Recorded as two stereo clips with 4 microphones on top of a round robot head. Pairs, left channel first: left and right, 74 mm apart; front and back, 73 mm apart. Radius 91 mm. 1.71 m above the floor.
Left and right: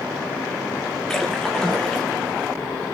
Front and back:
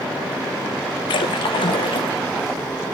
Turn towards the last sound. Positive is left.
turn(degrees=5)